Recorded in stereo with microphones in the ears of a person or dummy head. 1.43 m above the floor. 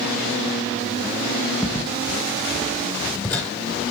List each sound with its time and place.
1.6 s footsteps: centre (ahead or behind), 1.9 m; by 3.5 s 10° left (ahead or behind), 2.5 m